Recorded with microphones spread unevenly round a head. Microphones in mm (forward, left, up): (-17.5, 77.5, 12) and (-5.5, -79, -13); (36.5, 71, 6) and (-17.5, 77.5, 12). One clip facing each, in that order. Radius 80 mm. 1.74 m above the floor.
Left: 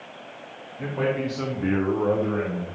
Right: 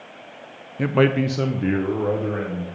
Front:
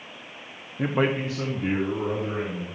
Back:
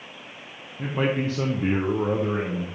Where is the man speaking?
60° right, 0.8 m; by 2.6 s 170° right, 2 m.